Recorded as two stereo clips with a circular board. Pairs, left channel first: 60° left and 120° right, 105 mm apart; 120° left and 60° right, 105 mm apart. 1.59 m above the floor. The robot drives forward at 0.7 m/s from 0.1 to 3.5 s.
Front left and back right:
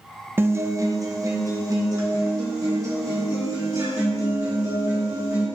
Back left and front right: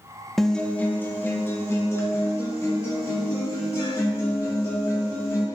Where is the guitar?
155° right, 0.6 m; by 5.5 s 175° right, 2.5 m.